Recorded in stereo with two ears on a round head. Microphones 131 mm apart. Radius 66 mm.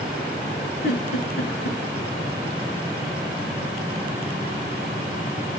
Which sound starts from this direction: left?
A giggle, at 0.8 s.